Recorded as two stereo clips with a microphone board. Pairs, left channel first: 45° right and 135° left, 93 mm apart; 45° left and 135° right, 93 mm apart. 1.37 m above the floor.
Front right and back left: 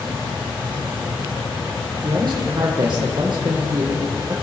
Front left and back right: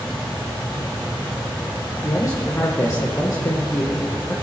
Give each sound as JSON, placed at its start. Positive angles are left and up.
{"t": 2.0, "sound": "a man speaking", "azimuth_deg": 100, "distance_m": 1.4}